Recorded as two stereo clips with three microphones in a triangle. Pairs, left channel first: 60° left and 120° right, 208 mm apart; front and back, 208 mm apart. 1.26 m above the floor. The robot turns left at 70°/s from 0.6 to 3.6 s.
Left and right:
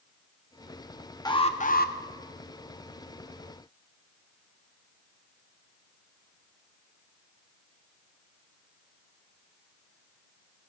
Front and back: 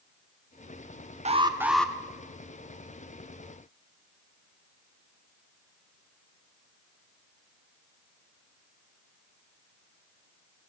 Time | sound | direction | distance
1.2 | an alarm | 125° left | 0.6 m